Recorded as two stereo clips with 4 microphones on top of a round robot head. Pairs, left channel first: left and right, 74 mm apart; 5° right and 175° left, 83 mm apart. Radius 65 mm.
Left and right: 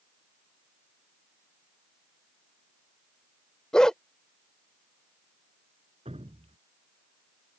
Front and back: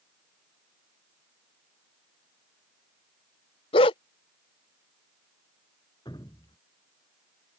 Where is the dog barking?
5° left.